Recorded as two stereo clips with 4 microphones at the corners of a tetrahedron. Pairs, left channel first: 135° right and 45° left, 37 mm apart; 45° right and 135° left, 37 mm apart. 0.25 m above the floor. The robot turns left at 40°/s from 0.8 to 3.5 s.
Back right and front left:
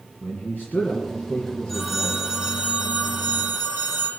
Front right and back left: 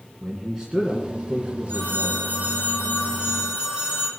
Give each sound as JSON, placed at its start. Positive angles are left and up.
{"t": 0.2, "sound": "a man speaking", "azimuth_deg": -160, "distance_m": 2.0}
{"t": 1.7, "sound": "a phone ringing", "azimuth_deg": 140, "distance_m": 6.0}